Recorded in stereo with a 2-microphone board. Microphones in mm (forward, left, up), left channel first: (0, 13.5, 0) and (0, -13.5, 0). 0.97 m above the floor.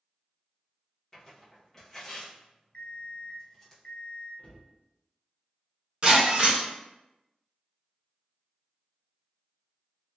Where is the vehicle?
No vehicle in this recording.